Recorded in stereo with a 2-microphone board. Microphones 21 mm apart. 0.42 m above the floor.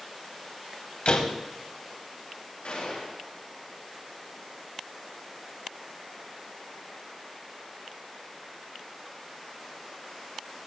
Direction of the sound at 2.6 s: 60° left (ahead or behind).